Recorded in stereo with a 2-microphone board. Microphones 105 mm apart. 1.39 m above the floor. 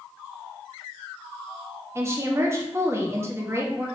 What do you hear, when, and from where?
1.9 s a woman speaking: 25° right (ahead or behind), 0.9 m